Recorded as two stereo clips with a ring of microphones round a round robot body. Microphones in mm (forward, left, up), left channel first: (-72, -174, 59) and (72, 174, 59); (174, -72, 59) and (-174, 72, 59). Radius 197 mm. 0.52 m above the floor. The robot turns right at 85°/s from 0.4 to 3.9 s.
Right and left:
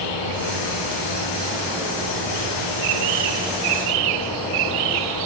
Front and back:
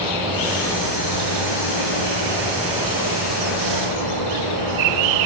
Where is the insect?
125° right, 7.5 m; by 5.3 s 170° left, 7.5 m.